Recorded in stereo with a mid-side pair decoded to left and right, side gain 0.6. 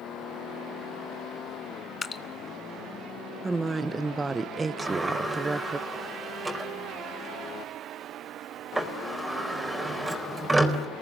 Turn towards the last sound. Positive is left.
turn(degrees=-10)